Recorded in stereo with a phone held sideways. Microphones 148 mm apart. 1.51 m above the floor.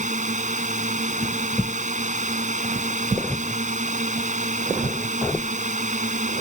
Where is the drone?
55° right (ahead or behind).